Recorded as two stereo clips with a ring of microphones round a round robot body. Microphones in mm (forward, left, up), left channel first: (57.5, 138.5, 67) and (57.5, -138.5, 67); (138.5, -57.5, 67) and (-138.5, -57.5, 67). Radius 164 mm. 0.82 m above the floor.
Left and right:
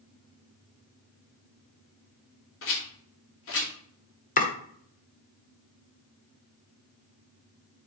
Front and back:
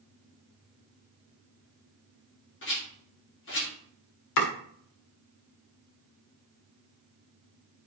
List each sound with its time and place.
2.6 s a rattle: 50° left, 2.5 m
4.4 s chopping: 30° left, 1.6 m